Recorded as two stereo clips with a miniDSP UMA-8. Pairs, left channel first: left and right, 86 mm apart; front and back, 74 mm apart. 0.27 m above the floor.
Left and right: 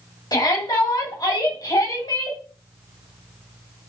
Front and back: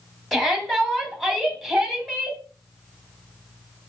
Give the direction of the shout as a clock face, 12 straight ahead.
9 o'clock.